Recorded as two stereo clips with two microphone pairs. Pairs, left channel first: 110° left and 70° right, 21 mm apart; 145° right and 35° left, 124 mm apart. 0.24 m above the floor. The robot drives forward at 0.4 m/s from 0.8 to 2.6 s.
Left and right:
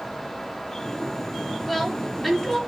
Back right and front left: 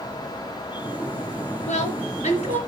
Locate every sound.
1.7 s a woman speaking: 155° right, 4.5 m